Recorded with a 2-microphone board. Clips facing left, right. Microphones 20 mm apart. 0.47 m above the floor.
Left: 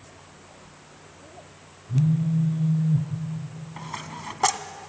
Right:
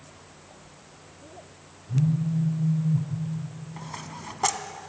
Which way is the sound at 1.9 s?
75° left (ahead or behind).